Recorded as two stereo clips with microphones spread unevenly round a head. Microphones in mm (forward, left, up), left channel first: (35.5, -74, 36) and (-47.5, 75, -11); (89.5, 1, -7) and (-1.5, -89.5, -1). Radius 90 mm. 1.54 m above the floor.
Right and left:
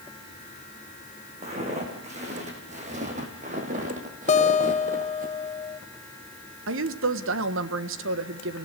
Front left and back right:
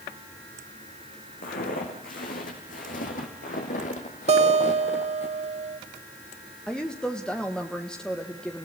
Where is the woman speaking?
130° left, 1.4 m.